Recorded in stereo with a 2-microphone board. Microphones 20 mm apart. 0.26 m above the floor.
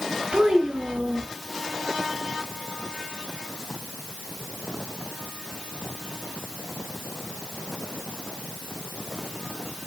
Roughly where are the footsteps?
No footsteps in this recording.